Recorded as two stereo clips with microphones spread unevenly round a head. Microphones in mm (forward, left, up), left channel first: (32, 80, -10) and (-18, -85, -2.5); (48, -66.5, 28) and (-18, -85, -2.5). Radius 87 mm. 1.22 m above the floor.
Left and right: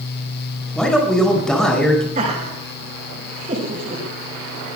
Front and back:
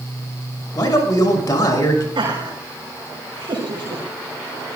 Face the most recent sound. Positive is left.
turn(degrees=-155)